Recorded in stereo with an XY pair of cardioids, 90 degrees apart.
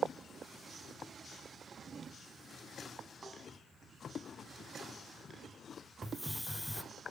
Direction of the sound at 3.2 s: 25° right.